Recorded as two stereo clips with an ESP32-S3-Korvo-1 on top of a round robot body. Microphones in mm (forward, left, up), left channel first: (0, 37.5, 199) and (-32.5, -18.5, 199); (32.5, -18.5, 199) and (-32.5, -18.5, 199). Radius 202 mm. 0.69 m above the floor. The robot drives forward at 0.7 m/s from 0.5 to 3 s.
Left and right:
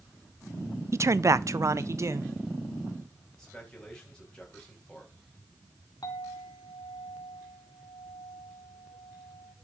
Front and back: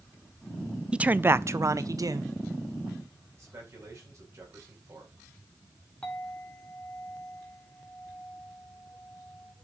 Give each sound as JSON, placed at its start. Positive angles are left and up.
{"t": 0.9, "sound": "a man speaking", "azimuth_deg": -110, "distance_m": 0.7}
{"t": 3.4, "sound": "a man speaking", "azimuth_deg": 140, "distance_m": 5.0}
{"t": 6.0, "sound": "a clink", "azimuth_deg": 75, "distance_m": 2.5}